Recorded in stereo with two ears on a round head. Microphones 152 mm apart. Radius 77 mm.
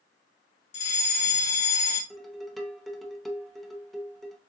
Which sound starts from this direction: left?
A fire alarm, at 0.7 s.